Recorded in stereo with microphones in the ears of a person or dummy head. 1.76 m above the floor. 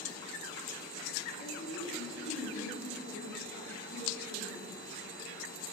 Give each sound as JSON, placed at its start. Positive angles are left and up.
{"t": 1.4, "sound": "a woman speaking", "side_deg": 90, "distance_m": 5.5}